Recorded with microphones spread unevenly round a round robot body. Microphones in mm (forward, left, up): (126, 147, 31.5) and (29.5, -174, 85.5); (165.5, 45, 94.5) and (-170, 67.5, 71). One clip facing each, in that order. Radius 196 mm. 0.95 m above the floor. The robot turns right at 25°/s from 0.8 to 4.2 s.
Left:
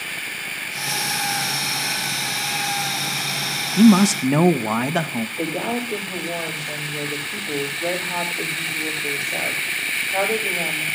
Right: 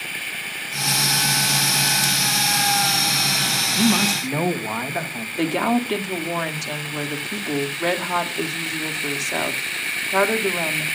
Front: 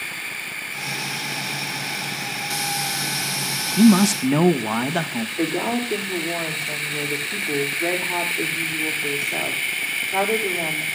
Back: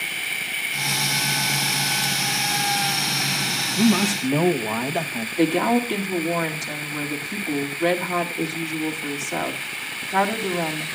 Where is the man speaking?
40° left, 1.0 m; by 5.3 s 50° left, 1.0 m.